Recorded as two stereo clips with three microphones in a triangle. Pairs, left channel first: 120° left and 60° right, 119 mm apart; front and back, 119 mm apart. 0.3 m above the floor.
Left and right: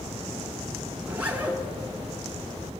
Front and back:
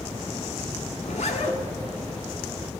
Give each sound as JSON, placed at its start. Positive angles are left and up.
{"t": 1.0, "sound": "a zipper", "azimuth_deg": 15, "distance_m": 1.1}